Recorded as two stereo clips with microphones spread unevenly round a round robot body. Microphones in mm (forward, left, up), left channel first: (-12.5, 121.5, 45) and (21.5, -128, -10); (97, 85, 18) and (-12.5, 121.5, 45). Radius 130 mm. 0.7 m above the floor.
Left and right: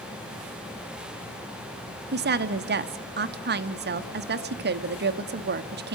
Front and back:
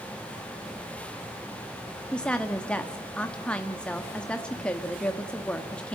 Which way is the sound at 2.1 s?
85° right.